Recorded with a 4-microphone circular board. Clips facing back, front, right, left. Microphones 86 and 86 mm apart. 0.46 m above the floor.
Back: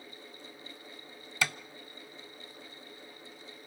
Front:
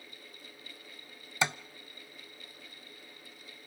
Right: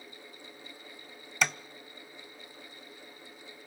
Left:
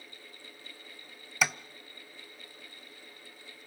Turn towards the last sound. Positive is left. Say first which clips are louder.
# front 2 dB, even
turn(degrees=10)